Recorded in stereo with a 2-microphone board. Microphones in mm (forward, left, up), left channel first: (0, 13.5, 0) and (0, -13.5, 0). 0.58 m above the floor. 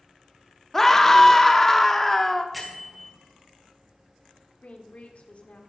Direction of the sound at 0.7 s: 15° left (ahead or behind).